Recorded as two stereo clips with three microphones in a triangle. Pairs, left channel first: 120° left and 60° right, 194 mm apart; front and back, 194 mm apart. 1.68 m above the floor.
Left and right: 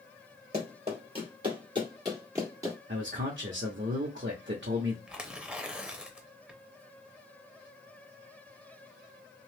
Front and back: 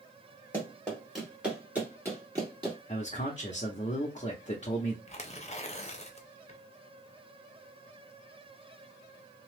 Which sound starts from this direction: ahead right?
A man speaking, at 2.9 s.